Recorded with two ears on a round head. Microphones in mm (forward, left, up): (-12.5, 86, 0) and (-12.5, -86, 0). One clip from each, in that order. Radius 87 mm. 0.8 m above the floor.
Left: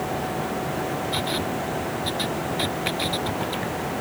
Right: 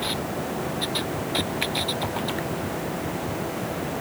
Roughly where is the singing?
I don't hear singing.